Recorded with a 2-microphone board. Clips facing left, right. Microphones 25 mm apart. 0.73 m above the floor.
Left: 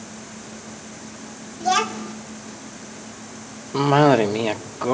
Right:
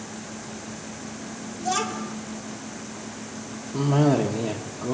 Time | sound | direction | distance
1.6 | a child speaking | 35° left (ahead or behind) | 1.6 m
3.7 | a cough | 50° left (ahead or behind) | 1.2 m